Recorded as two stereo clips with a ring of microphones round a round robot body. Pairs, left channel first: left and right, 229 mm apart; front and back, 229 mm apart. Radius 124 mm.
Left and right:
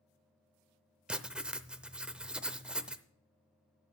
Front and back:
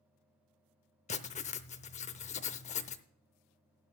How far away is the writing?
About 0.6 m.